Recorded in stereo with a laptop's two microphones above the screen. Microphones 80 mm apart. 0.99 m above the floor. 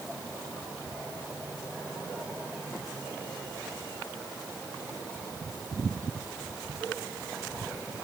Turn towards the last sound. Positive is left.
No sound to turn to.